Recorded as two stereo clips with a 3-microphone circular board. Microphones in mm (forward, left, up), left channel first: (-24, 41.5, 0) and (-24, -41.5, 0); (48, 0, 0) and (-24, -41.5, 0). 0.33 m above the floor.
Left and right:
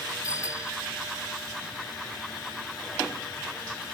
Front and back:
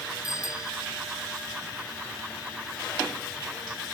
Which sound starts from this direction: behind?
A bicycle bell, at 0.2 s.